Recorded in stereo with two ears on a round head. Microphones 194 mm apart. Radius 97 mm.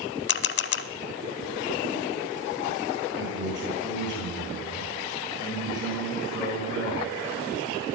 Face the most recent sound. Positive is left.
turn(degrees=-60)  # may be behind; listen again after turning